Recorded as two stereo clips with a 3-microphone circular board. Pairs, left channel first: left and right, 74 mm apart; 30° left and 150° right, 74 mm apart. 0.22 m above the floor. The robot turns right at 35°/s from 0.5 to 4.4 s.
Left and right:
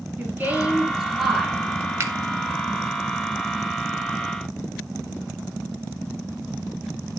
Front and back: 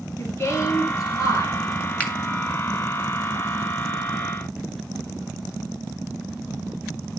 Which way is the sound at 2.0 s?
40° right.